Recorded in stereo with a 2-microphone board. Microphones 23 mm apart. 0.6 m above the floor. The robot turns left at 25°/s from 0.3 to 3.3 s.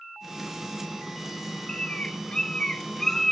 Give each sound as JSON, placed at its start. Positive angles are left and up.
{"t": 1.7, "sound": "a bird", "side_deg": 50, "distance_m": 0.6}